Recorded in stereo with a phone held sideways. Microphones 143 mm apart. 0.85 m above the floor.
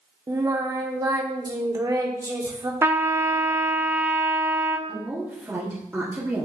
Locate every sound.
0.3 s singing: 25° right (ahead or behind), 0.8 m
2.8 s a trumpet: 15° right (ahead or behind), 0.5 m
4.9 s a woman speaking: 20° right (ahead or behind), 1.5 m